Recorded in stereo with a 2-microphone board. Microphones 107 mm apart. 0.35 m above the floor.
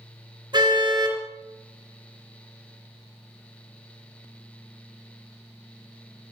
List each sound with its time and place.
0.5 s a car horn: 40° right (ahead or behind), 3.5 m